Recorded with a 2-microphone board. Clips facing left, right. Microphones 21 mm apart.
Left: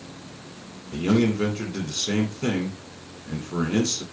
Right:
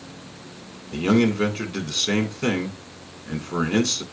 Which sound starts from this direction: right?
A man speaking, at 0.9 s.